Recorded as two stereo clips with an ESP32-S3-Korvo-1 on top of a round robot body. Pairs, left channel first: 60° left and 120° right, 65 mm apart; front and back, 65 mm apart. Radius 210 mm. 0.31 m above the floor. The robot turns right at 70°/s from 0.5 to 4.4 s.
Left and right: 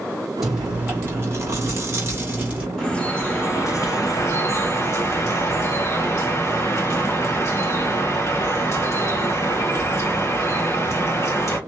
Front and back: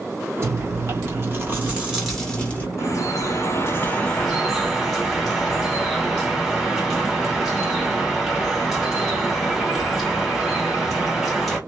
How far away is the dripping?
About 2 m.